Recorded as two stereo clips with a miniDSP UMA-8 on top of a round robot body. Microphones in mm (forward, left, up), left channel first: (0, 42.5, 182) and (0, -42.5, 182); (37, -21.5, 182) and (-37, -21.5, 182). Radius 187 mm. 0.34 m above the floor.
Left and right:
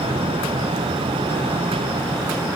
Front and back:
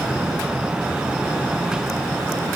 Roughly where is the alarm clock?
No alarm clock in this recording.